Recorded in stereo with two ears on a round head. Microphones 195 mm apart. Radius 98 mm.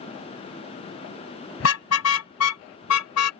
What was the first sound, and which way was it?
A car horn, 65° left (ahead or behind).